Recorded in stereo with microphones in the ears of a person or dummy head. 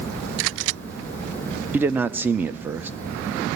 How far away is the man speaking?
About 0.6 m.